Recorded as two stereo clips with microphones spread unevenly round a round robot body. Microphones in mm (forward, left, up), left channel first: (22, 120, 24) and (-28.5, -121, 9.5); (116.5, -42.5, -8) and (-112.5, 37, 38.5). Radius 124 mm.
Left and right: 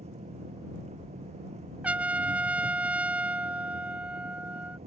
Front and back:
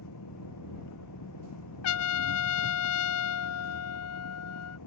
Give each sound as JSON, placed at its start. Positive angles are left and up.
{"t": 0.0, "sound": "an engine running", "azimuth_deg": -35}
{"t": 1.8, "sound": "a trumpet", "azimuth_deg": -20}